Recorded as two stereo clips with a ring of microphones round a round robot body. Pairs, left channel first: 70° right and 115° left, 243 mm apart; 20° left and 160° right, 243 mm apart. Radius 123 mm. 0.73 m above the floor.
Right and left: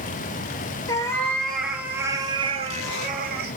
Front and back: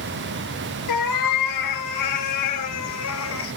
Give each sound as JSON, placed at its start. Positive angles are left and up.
{"t": 0.9, "sound": "a cat meowing", "azimuth_deg": 10, "distance_m": 4.5}